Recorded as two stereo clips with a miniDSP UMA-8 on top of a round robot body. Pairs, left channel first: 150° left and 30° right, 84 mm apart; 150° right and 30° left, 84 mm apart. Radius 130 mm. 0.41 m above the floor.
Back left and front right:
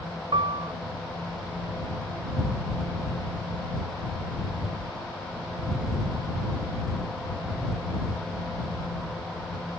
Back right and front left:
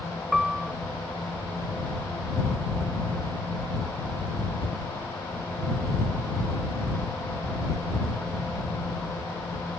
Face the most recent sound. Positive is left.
turn(degrees=-55)